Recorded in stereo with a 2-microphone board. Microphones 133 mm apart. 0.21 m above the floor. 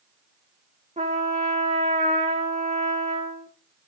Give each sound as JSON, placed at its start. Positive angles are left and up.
{"t": 1.0, "sound": "a trumpet", "side_deg": -60, "distance_m": 1.9}